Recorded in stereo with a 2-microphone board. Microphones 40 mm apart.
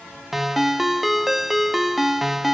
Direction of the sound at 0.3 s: Centre (ahead or behind).